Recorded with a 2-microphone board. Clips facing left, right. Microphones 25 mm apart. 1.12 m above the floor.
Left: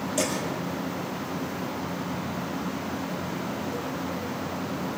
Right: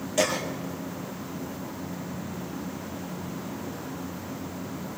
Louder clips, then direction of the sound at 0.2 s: Right 4 dB; 20° right (ahead or behind).